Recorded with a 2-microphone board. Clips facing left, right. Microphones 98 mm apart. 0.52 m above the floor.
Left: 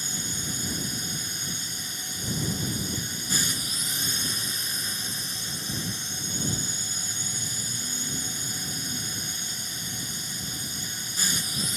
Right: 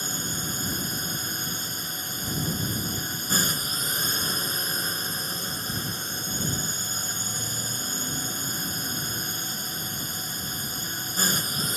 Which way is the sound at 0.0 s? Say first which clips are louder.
Right 3 dB; 50° right (ahead or behind).